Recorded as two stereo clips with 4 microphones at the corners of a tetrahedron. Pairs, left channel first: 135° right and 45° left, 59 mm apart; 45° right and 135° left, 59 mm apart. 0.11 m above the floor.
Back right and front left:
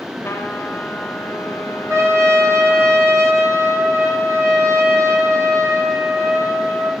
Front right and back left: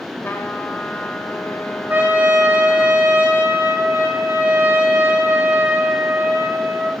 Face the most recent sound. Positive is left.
turn(degrees=85)